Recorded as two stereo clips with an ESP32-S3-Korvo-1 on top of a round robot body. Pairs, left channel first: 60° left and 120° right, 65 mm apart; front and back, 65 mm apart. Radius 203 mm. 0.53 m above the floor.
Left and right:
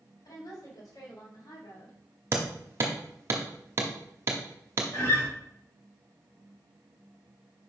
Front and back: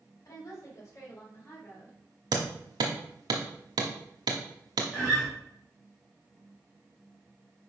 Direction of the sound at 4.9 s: 100° left.